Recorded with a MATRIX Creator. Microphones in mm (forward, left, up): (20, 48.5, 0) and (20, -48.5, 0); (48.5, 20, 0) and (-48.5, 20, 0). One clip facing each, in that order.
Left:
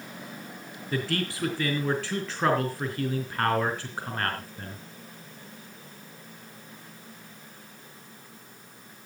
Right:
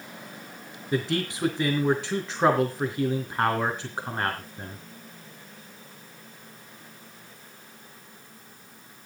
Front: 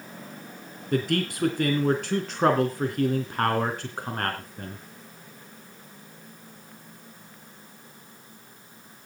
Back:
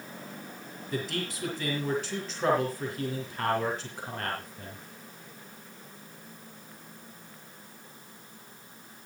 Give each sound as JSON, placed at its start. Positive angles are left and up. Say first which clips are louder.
{"t": 0.9, "sound": "a man speaking", "louder": "right 3 dB, front 8 dB", "azimuth_deg": -20, "distance_m": 3.0}